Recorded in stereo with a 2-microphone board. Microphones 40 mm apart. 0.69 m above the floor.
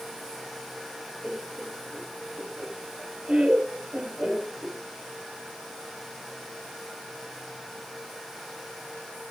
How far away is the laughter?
About 1.6 m.